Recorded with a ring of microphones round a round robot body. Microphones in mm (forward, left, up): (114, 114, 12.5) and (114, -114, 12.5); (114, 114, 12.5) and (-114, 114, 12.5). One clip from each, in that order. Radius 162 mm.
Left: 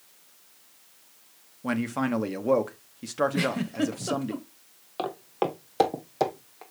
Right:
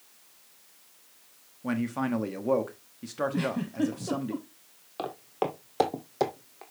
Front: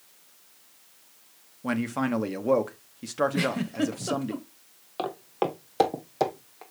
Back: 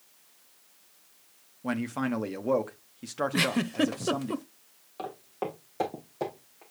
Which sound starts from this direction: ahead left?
Footsteps, at 5.0 s.